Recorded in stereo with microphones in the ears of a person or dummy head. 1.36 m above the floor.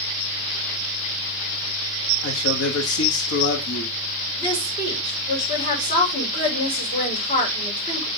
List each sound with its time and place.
2.2 s a man speaking: 80° left, 1.9 m
4.4 s a woman speaking: 30° left (ahead or behind), 4 m